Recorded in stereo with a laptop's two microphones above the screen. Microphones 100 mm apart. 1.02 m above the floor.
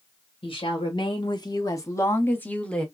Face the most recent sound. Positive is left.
turn(degrees=10)  # may be behind; listen again after turning